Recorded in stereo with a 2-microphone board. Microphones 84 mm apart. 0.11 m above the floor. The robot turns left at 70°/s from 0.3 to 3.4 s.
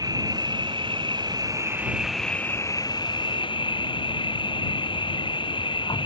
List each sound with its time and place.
0.0 s an insect: 55° right; by 6.1 s 90° left